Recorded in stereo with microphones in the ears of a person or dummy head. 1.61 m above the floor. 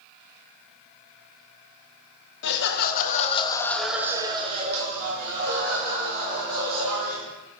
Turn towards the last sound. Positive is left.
turn(degrees=-60)  # may be behind; listen again after turning